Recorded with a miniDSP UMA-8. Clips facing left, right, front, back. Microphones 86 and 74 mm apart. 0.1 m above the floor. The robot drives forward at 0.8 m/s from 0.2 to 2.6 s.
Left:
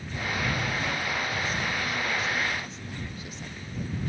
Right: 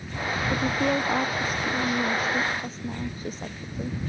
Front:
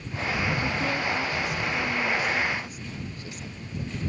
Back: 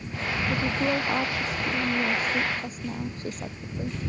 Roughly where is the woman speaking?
Behind right.